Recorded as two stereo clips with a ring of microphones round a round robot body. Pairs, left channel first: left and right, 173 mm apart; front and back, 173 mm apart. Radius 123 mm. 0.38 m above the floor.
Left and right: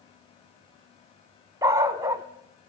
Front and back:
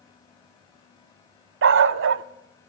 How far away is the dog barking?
About 0.6 m.